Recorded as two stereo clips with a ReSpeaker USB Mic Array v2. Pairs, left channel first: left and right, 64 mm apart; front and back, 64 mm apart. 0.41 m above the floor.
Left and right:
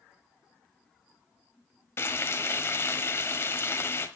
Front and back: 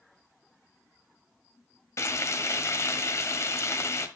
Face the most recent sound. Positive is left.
turn(degrees=40)